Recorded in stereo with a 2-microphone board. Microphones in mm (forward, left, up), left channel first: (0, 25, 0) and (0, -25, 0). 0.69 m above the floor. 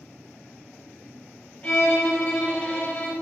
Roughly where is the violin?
Left.